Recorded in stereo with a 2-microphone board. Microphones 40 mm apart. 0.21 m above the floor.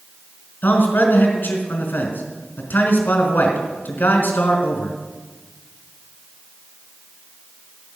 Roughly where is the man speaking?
Left.